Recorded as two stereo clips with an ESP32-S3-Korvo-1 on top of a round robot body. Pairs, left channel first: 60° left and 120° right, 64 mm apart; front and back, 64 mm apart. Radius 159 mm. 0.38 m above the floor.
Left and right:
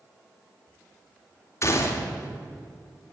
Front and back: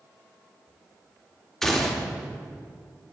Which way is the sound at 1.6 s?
85° left.